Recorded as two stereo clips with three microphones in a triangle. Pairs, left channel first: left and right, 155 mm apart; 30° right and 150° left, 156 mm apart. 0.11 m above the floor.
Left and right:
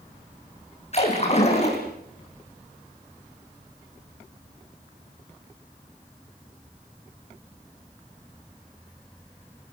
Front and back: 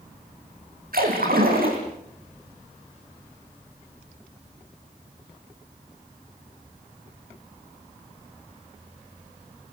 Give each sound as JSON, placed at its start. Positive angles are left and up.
{"t": 0.9, "sound": "a splash", "azimuth_deg": 135, "distance_m": 6.0}